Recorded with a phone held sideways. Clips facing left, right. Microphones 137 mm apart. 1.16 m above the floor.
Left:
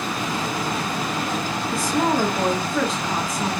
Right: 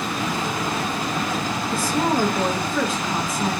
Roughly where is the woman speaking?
Centre.